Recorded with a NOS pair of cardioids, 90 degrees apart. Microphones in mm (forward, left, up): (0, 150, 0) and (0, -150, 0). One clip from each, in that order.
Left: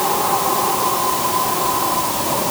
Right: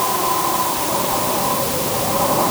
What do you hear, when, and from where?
Only background noise.